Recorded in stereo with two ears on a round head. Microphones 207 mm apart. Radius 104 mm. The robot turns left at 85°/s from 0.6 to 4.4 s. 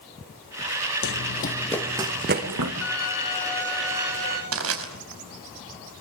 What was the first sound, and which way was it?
Running footsteps, 60° left (ahead or behind).